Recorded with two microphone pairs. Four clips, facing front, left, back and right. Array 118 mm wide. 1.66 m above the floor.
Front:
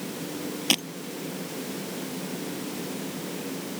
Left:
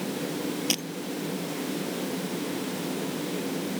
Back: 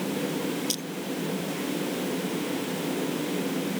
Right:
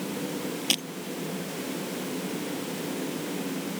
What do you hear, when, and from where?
0.7 s breaking glass: 5° right